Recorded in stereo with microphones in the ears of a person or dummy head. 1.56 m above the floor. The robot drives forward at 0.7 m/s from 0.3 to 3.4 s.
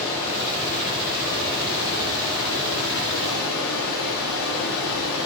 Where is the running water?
40° left (ahead or behind), 3 m; by 5.3 s 75° left (ahead or behind), 2.0 m.